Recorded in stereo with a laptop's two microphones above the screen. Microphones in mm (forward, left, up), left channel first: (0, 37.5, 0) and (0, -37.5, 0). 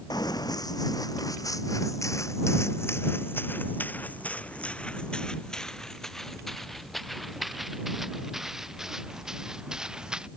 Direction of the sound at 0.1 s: 65° left (ahead or behind).